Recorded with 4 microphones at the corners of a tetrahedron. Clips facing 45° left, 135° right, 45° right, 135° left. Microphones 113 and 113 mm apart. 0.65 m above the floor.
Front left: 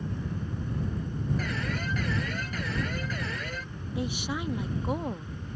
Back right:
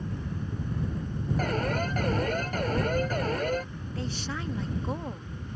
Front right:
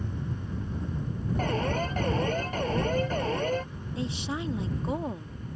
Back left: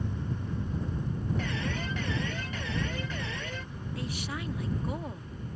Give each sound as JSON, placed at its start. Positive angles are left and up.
{"t": 1.4, "sound": "an alarm", "azimuth_deg": -90}
{"t": 4.0, "sound": "a woman speaking", "azimuth_deg": -20}